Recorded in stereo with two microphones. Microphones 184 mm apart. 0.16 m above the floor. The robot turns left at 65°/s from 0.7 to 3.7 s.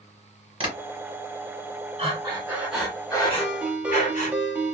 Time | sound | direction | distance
0.6 | tapping | 30° right (ahead or behind) | 1.7 m
2.0 | breathing | 130° right | 1.2 m
3.4 | a ringtone | centre (ahead or behind) | 0.8 m